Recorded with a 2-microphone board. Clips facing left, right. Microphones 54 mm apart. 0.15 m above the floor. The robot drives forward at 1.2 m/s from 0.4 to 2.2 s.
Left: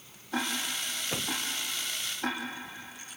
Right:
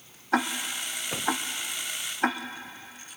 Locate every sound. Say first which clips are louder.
0.3 s ticking: right 5 dB; 65° right (ahead or behind), 1.8 m; by 2.4 s 50° right (ahead or behind), 2 m